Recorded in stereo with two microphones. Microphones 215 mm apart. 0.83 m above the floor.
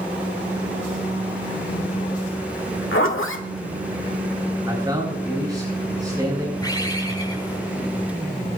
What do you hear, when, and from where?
2.9 s a zipper: 70° left (ahead or behind), 1.4 m
4.7 s a man speaking: 15° right (ahead or behind), 9 m
6.6 s a bird: 20° left (ahead or behind), 7.5 m